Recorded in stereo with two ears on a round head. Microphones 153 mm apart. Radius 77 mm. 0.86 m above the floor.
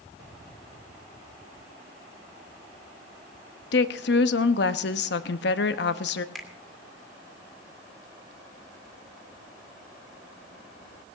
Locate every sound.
3.7 s a woman speaking: 70° left (ahead or behind), 0.9 m
6.3 s a finger snap: centre (ahead or behind), 2.0 m